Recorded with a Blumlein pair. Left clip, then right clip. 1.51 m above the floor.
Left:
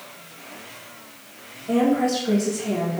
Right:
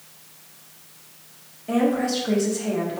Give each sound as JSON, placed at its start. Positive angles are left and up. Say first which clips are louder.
{"t": 1.7, "sound": "a woman speaking", "louder": "left 2 dB", "azimuth_deg": -10, "distance_m": 1.6}